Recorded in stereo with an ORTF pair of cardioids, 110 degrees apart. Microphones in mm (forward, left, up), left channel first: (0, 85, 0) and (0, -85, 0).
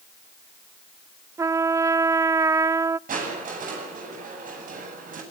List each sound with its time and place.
1.4 s a trumpet: 20° right, 0.5 m
3.1 s crushing: 50° right, 9.5 m